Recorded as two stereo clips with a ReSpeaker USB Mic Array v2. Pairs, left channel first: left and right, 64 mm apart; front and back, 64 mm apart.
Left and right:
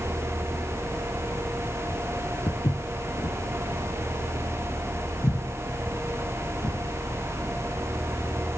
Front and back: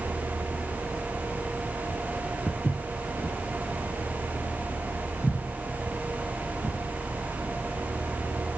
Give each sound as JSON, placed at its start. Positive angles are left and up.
{"t": 2.5, "sound": "footsteps", "azimuth_deg": 80, "distance_m": 2.5}